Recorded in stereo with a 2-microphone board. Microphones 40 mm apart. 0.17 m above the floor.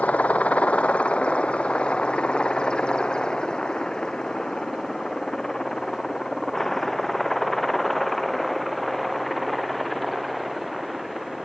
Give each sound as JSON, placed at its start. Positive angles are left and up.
{"t": 0.0, "sound": "a helicopter", "side_deg": 40}